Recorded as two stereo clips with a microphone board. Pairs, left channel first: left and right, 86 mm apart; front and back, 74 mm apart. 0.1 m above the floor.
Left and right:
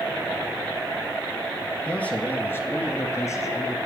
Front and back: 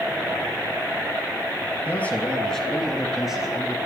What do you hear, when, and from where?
1.9 s a man speaking: 30° left, 1.6 m; by 3.8 s 110° left, 2.0 m